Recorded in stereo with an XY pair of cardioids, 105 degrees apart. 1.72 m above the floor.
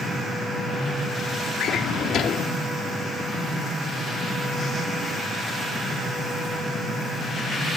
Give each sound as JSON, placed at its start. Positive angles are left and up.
{"t": 1.6, "sound": "a drawer", "azimuth_deg": 70, "distance_m": 2.5}